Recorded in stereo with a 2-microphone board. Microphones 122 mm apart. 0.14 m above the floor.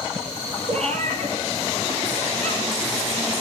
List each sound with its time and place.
0.7 s a cat meowing: 65° right (ahead or behind), 2.5 m